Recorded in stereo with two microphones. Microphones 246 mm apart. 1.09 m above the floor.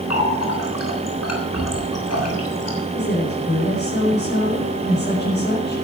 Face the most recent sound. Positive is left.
turn(degrees=45)  # may be behind; listen again after turning